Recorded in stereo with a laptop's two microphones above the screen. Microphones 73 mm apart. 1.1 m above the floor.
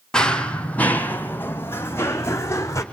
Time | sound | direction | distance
0.1 | running footsteps | 10° left (ahead or behind) | 1.9 m